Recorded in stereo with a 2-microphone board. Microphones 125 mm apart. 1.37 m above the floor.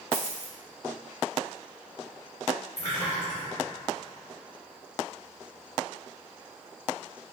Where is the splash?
70° left (ahead or behind), 1.7 m.